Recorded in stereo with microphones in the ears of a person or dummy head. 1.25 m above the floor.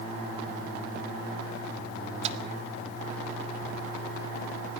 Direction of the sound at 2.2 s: 40° right (ahead or behind).